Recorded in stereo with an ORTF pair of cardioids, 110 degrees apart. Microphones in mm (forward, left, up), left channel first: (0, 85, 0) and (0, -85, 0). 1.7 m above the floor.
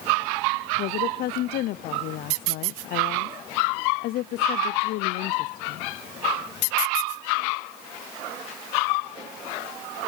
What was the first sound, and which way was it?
A woman speaking, 70° left.